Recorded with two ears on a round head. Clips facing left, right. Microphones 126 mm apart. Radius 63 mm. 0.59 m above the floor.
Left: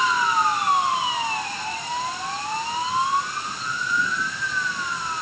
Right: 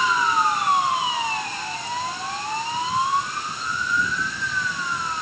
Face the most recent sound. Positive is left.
No sound to turn to.